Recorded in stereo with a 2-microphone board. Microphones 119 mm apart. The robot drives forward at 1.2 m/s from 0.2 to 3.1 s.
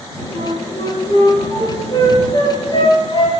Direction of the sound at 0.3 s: 30° left (ahead or behind).